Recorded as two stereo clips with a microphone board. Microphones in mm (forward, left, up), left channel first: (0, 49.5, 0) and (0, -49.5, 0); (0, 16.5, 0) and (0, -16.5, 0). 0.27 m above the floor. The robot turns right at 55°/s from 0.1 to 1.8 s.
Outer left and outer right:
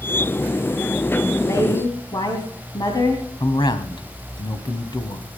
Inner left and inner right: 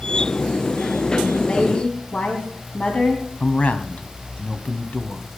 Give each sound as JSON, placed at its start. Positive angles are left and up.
{"t": 1.4, "sound": "a woman speaking", "side_deg": 30, "distance_m": 2.0}
{"t": 3.4, "sound": "a man speaking", "side_deg": 50, "distance_m": 1.5}